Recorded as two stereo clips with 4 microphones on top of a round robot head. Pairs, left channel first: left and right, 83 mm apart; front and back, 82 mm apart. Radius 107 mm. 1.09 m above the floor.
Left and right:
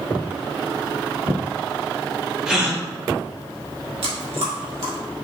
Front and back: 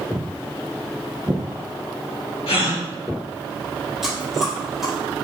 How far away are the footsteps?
About 1.1 m.